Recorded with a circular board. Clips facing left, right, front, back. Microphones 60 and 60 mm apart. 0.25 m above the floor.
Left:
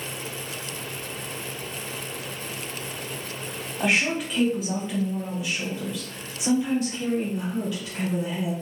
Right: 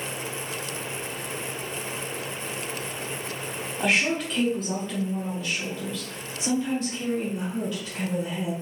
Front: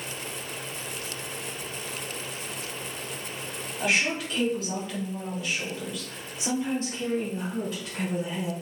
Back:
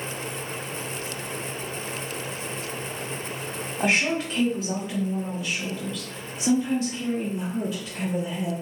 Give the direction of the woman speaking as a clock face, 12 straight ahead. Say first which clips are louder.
Even, back 3 dB; 6 o'clock.